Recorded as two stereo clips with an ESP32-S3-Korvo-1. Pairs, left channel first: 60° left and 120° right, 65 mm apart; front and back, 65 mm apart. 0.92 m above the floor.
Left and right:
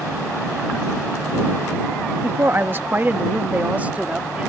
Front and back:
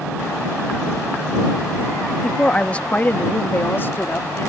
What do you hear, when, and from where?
2.2 s a woman speaking: 80° right; by 4.5 s 50° right